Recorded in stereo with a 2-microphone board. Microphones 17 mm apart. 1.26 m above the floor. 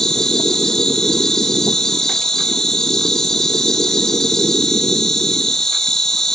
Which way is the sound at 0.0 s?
35° left (ahead or behind).